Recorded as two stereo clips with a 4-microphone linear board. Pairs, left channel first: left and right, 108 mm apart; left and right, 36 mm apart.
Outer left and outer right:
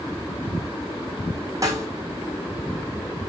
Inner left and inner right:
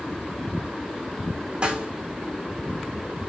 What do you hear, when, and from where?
1.6 s a snare drum: 30° right (ahead or behind), 1.2 m